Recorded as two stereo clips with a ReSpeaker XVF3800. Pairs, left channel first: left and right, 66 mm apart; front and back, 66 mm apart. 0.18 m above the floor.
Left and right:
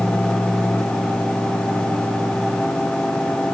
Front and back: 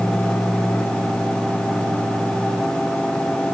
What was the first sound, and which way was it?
Only background noise.